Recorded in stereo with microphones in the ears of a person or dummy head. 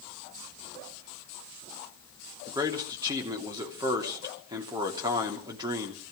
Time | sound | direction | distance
2.5 | a man speaking | 25° right (ahead or behind) | 3 m